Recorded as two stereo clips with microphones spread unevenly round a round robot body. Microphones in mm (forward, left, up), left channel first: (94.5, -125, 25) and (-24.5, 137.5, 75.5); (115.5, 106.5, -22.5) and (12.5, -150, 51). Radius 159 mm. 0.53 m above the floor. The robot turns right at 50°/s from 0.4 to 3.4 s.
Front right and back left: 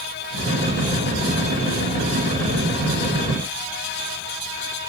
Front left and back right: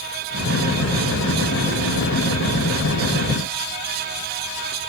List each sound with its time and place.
Only background noise.